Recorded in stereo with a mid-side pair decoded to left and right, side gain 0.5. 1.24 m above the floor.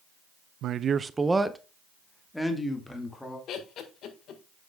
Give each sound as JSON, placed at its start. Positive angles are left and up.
{"t": 0.6, "sound": "a man speaking", "azimuth_deg": -70, "distance_m": 0.5}
{"t": 3.5, "sound": "laughter", "azimuth_deg": 65, "distance_m": 1.5}